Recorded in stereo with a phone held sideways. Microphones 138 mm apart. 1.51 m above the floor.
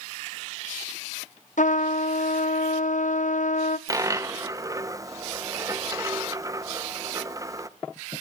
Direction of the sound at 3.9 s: 25° right (ahead or behind).